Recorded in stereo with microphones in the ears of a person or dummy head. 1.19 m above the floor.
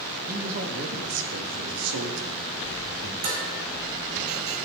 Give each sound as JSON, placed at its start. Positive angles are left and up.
{"t": 0.3, "sound": "a man speaking", "side_deg": -45, "distance_m": 1.6}
{"t": 3.2, "sound": "dishes clattering", "side_deg": -55, "distance_m": 4.5}